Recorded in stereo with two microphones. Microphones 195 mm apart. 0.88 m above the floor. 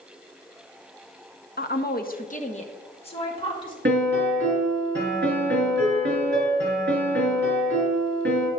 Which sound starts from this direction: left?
A woman speaking, at 1.6 s.